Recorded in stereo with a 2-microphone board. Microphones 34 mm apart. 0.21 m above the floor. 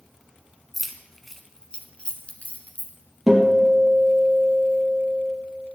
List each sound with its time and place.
0.7 s keys jangling: 10° right (ahead or behind), 1.4 m; by 2.9 s 55° left (ahead or behind), 2 m
3.3 s a guitar: 5° right (ahead or behind), 4.5 m